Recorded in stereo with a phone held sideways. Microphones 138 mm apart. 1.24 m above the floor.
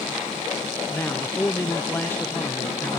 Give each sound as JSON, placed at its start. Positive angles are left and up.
{"t": 0.9, "sound": "a man speaking", "side_deg": 15, "distance_m": 0.5}